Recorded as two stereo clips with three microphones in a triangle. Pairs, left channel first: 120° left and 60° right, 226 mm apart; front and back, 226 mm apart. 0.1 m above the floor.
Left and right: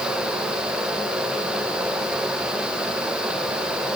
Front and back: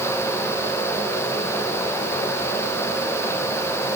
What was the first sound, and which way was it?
Only background noise.